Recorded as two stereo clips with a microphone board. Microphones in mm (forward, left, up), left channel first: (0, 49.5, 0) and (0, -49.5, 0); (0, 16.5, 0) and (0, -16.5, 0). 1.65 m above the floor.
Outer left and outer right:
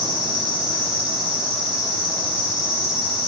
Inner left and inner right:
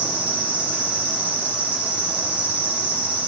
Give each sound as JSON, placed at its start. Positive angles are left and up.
{"t": 0.0, "sound": "an insect", "side_deg": -60, "distance_m": 6.5}